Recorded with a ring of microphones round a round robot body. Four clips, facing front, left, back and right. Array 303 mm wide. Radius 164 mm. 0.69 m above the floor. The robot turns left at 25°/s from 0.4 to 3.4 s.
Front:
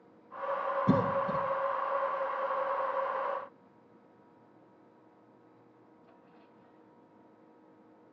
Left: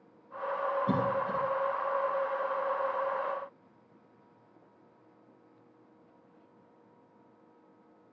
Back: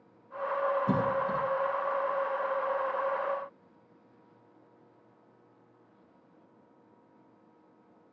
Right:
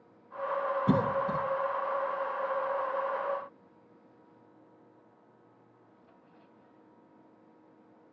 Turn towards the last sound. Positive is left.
turn(degrees=-115)